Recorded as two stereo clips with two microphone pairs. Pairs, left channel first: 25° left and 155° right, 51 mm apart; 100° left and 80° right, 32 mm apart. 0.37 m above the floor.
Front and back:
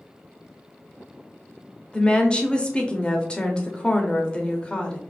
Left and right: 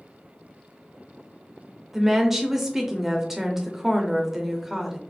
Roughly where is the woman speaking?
Ahead.